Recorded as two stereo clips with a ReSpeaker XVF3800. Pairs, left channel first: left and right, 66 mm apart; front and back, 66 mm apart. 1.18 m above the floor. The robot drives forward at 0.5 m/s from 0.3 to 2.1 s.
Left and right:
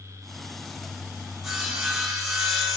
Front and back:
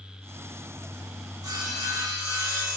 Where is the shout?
No shout in this recording.